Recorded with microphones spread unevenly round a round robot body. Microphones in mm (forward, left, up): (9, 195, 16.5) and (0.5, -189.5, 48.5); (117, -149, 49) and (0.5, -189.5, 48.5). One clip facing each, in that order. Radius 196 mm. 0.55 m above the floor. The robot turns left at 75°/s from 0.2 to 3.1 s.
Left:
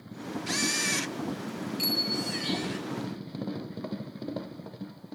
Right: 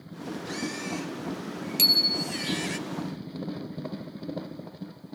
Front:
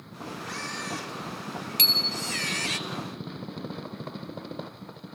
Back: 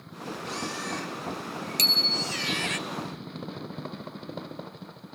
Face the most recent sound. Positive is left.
turn(degrees=150)